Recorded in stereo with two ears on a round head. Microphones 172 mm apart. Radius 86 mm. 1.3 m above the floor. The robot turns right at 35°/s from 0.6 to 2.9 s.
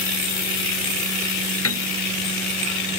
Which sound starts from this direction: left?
A piano, at 1.6 s.